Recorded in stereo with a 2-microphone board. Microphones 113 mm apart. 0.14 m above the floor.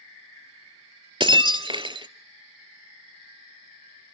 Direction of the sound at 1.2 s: 45° right (ahead or behind).